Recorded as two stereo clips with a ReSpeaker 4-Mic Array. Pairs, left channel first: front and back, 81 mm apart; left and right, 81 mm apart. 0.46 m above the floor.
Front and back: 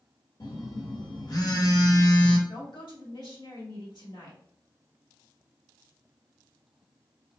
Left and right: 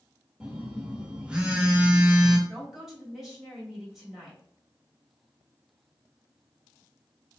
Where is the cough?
I don't hear a cough.